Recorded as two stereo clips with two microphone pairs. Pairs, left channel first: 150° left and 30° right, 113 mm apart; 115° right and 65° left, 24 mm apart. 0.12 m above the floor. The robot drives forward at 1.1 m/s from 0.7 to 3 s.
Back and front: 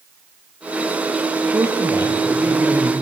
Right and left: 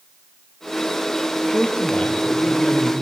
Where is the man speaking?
90° right, 3.5 m; by 2.9 s 115° right, 4 m.